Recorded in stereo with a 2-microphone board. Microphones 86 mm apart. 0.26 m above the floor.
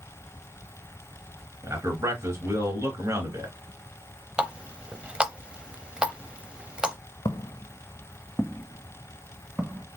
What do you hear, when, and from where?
1.6 s a man speaking: 40° right (ahead or behind), 3 m
4.4 s a running tap: 10° right (ahead or behind), 0.6 m
7.2 s footsteps: 55° left (ahead or behind), 0.6 m; by 9.9 s 20° right (ahead or behind), 1.3 m